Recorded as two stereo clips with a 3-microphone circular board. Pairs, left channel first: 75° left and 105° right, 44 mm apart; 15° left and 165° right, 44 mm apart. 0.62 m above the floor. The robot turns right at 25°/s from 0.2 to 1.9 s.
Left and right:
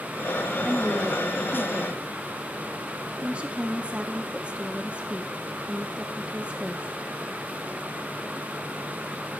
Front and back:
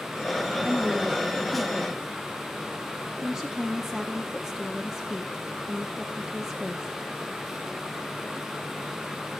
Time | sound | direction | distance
0.6 | a woman speaking | 125° right | 0.5 m